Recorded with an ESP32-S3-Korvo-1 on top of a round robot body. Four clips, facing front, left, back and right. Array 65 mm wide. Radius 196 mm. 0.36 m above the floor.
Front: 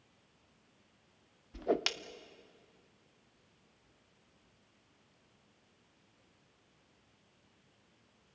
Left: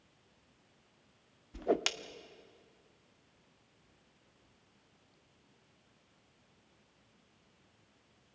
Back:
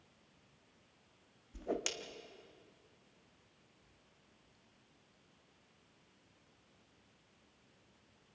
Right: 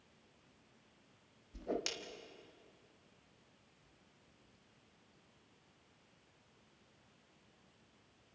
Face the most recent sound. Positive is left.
turn(degrees=45)